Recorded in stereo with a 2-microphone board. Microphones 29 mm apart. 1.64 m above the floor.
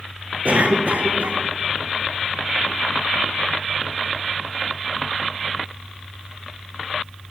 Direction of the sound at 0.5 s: 55° right (ahead or behind).